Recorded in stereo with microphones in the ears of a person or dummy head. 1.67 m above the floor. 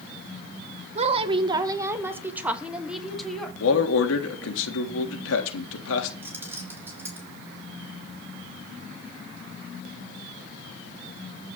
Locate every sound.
0.9 s a woman speaking: 45° right (ahead or behind), 1.2 m; by 3.5 s 5° right (ahead or behind), 3 m
3.6 s a man speaking: 85° left, 3.5 m
6.2 s keys jangling: 20° right (ahead or behind), 3.5 m